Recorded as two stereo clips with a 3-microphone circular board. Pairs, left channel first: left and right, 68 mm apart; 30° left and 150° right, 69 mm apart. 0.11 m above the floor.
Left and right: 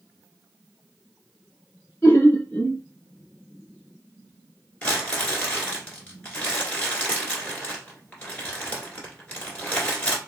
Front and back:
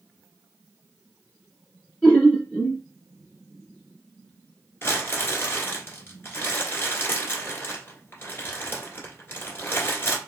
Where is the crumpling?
35° left, 1.4 m.